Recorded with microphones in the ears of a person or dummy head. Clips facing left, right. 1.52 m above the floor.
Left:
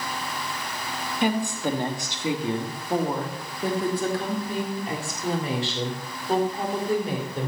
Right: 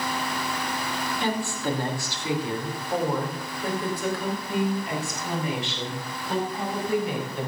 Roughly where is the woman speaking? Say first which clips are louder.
Left 5 dB; centre.